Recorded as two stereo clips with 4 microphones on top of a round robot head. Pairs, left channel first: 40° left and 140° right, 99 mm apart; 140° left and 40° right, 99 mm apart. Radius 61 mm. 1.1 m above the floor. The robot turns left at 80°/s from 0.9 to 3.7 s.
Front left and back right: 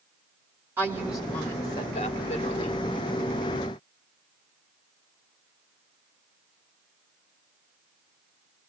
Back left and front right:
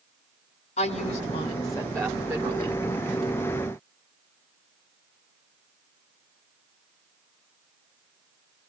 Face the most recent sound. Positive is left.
turn(degrees=-75)